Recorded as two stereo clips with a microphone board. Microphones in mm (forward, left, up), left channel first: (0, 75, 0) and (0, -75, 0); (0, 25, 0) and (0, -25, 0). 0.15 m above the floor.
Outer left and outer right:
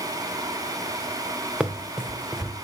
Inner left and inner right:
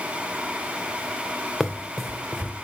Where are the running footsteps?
5° right (ahead or behind), 0.8 m.